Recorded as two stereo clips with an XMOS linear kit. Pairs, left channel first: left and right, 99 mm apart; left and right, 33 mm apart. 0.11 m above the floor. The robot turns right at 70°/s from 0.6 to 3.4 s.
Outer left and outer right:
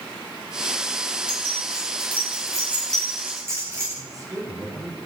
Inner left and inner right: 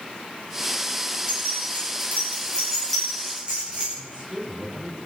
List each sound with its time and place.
1.3 s keys jangling: 60° left (ahead or behind), 9 m; by 3.9 s 25° right (ahead or behind), 9 m
4.0 s a woman speaking: 35° right (ahead or behind), 8 m